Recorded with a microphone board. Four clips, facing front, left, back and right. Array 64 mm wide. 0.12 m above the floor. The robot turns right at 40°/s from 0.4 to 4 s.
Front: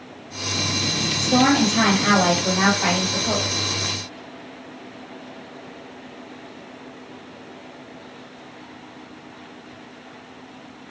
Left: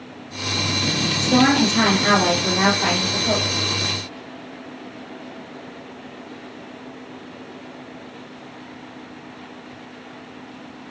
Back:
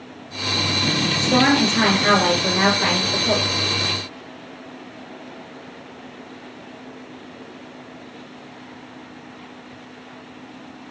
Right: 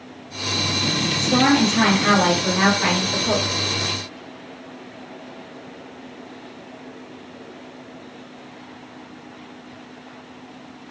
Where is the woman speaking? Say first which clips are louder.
Left 1 dB, even; 160° left, 1.6 m; by 3.5 s 110° right, 1.6 m.